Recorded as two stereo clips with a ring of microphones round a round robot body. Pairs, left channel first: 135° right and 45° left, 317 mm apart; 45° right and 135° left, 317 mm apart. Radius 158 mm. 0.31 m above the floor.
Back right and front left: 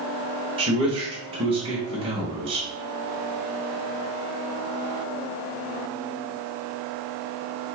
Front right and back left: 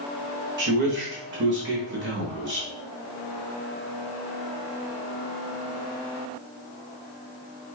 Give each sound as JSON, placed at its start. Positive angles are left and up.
{"t": 0.6, "sound": "a man speaking", "azimuth_deg": 110, "distance_m": 1.2}